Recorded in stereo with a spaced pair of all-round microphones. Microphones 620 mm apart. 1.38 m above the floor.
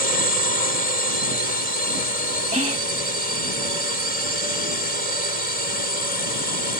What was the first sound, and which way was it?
A drone, 75° right (ahead or behind).